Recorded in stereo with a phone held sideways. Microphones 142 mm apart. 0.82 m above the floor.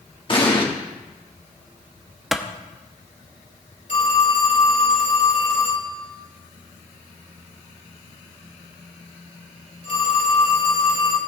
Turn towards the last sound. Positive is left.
turn(degrees=60)  # may be behind; listen again after turning